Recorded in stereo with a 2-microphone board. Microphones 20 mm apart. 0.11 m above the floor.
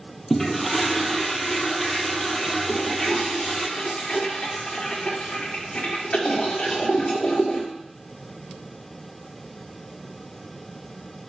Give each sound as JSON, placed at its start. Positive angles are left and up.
{"t": 0.3, "sound": "a toilet flushing", "side_deg": 15, "distance_m": 1.2}
{"t": 2.7, "sound": "a toilet flushing", "side_deg": 90, "distance_m": 4.0}